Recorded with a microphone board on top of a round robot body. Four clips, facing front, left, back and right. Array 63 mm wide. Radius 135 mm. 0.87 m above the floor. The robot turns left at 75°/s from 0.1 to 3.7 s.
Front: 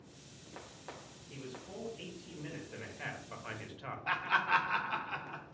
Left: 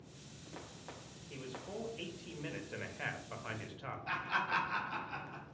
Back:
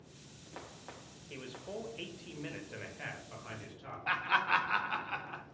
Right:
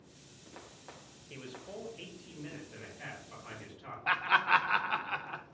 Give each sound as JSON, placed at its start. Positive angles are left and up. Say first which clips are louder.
{"t": 1.3, "sound": "a man speaking", "louder": "even, back 3 dB", "azimuth_deg": -135, "distance_m": 1.1}
{"t": 4.1, "sound": "laughter", "louder": "right 9 dB, even", "azimuth_deg": -95, "distance_m": 0.6}